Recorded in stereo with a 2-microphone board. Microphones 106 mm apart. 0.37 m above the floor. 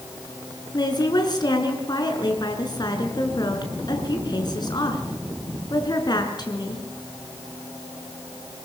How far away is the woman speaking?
About 5.5 m.